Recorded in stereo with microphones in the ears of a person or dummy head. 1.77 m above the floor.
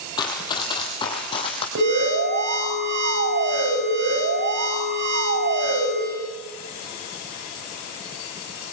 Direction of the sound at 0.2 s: 25° left (ahead or behind).